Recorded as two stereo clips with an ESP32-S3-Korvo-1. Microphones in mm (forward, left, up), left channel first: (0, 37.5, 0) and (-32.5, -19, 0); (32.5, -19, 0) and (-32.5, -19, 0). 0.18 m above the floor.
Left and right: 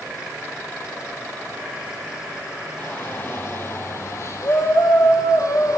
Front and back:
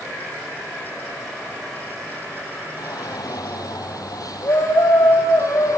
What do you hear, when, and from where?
2.8 s a shout: straight ahead, 5 m; by 5.8 s 35° left, 7 m